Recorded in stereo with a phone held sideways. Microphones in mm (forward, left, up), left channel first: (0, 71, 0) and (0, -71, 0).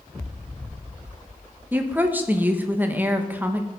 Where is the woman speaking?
10° right (ahead or behind), 1.3 m.